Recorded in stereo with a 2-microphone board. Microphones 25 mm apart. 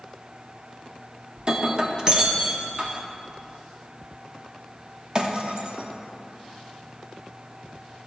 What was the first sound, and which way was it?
Breaking glass, 35° right (ahead or behind).